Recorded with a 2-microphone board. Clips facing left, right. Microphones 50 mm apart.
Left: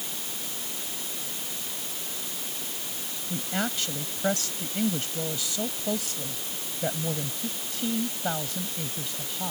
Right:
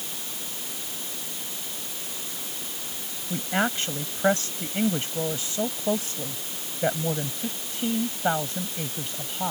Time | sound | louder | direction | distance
3.3 | a woman speaking | right 5 dB | 35° right (ahead or behind) | ?